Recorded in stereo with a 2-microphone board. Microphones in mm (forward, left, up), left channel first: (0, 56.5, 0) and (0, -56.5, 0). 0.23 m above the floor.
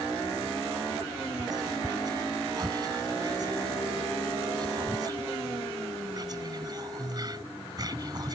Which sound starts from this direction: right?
Whispering, at 1.4 s.